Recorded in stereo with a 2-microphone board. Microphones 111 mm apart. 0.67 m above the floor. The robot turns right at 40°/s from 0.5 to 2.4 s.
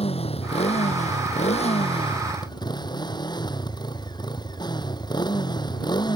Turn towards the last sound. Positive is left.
turn(degrees=140)